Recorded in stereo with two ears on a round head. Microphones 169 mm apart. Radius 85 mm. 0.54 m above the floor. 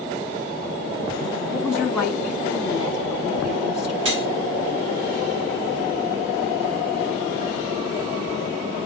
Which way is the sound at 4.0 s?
60° right (ahead or behind).